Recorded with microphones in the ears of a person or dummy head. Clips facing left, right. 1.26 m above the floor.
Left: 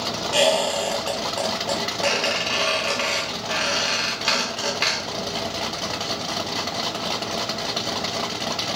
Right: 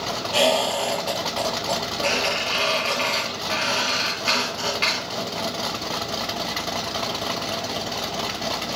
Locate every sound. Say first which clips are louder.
0.3 s a squeak: left 1 dB; 20° left (ahead or behind), 1.4 m